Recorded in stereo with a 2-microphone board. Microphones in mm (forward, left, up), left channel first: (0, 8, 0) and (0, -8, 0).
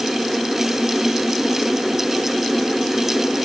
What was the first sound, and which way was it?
Only background noise.